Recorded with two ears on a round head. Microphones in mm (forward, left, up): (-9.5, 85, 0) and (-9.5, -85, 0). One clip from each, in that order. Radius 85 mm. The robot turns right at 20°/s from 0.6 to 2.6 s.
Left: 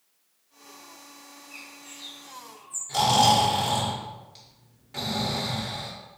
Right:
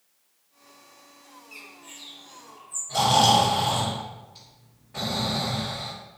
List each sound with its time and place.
1.5 s a bird: 5° right (ahead or behind), 2.5 m; by 2.8 s 20° left (ahead or behind), 2.5 m
2.9 s snoring: 65° left (ahead or behind), 3.5 m